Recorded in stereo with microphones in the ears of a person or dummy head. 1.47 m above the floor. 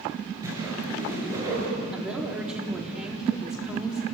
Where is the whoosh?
20° right (ahead or behind), 9.5 m.